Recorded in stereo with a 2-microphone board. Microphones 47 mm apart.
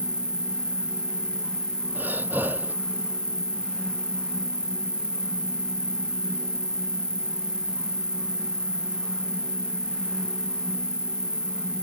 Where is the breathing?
40° right (ahead or behind).